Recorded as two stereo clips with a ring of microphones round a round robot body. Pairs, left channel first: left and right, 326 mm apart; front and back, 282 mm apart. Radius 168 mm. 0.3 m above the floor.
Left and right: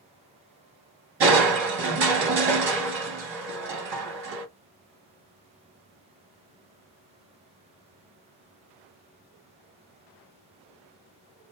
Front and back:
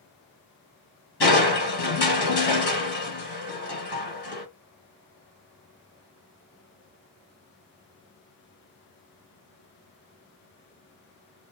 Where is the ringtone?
I don't hear a ringtone.